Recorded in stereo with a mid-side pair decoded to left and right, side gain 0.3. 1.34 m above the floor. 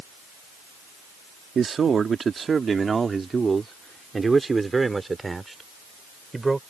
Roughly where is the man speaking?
Ahead right.